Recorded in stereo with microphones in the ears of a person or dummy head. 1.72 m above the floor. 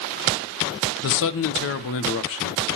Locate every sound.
1.0 s a man speaking: 70° left (ahead or behind), 1.1 m